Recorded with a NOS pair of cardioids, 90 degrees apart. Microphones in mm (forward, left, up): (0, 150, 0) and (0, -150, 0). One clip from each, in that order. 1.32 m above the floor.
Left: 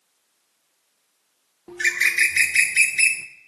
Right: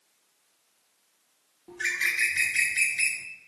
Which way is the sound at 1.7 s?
35° left.